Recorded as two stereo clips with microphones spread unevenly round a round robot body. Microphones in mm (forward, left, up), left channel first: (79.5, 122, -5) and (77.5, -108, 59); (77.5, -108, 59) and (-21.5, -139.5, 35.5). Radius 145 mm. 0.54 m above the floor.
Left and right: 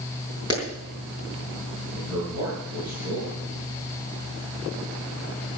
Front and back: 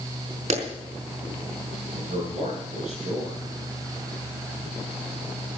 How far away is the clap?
About 5 m.